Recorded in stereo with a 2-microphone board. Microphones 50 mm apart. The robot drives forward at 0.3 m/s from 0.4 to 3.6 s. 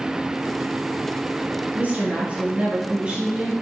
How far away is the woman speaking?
About 0.8 m.